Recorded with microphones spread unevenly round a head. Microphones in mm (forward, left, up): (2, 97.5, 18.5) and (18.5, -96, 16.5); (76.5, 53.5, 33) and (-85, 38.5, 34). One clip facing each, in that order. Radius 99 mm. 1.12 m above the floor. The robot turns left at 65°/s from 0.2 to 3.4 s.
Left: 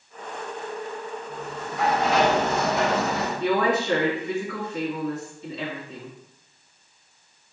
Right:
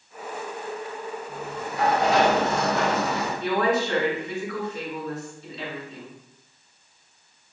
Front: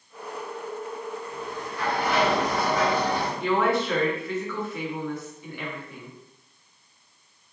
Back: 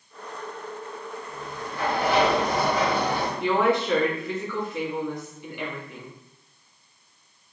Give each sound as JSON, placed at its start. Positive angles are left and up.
{"t": 1.3, "sound": "a sliding door", "azimuth_deg": -90, "distance_m": 2.5}
{"t": 3.4, "sound": "a woman speaking", "azimuth_deg": 110, "distance_m": 2.5}